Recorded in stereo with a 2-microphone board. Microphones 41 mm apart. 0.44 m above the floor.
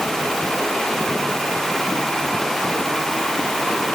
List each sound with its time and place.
Only background noise.